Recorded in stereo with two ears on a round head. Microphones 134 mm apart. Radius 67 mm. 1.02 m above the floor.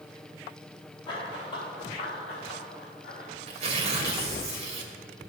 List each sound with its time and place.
1.1 s running footsteps: 30° left (ahead or behind), 5 m; by 3.3 s 45° left (ahead or behind), 6 m
3.5 s tearing paper: 45° right (ahead or behind), 2 m